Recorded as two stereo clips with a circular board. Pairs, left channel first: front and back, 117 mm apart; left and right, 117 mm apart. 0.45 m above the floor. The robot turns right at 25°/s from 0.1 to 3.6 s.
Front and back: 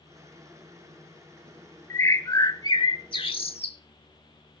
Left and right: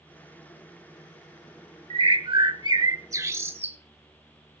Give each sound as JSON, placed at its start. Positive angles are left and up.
{"t": 1.9, "sound": "a bird", "azimuth_deg": -65, "distance_m": 1.0}